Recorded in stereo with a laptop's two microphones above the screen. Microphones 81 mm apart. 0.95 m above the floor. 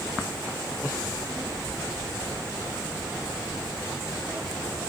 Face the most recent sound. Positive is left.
turn(degrees=-35)  # may be behind; listen again after turning